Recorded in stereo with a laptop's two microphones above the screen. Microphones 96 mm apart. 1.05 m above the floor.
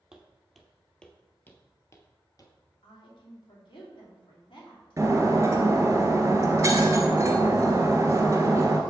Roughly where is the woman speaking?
Left.